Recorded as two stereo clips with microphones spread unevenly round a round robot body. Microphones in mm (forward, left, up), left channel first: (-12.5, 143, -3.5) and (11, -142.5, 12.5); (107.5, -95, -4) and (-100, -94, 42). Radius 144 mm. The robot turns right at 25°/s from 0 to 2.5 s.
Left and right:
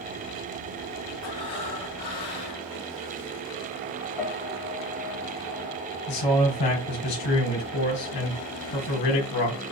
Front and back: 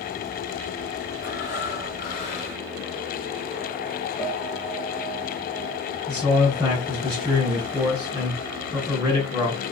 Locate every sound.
1.2 s breathing: 55° left, 3 m; by 2.6 s 90° left, 3 m
4.2 s a piano: 80° left, 1.3 m
6.1 s a man speaking: 95° left, 3.5 m